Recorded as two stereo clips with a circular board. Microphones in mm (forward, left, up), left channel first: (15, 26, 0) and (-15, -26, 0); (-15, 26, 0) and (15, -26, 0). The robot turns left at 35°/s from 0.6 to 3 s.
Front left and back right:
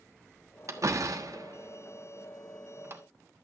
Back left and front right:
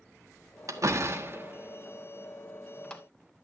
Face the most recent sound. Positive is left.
turn(degrees=-170)